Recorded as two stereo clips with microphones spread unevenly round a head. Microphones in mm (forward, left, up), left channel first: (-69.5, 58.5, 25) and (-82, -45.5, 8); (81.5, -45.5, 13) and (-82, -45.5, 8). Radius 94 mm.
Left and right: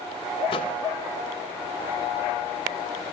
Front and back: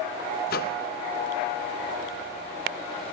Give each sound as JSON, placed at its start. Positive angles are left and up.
{"t": 0.5, "sound": "a microwave", "azimuth_deg": 30, "distance_m": 0.8}